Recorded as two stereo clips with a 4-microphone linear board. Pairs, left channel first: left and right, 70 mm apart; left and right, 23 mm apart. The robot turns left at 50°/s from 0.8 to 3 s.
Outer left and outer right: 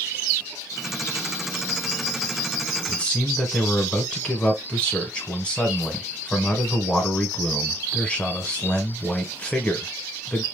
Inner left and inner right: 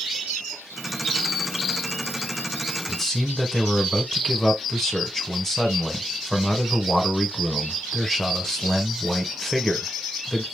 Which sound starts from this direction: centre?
A man speaking, at 2.9 s.